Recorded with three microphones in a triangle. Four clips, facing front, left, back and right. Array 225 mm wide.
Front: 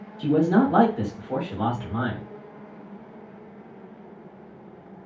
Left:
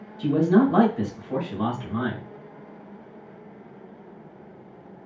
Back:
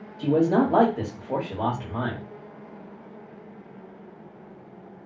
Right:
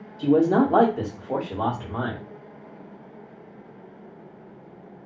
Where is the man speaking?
115° right, 1.6 m.